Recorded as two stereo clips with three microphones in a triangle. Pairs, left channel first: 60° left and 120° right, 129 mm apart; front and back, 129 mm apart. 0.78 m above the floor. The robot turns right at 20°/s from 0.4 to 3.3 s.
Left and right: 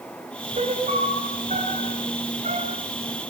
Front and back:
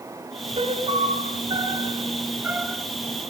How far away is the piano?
About 3 m.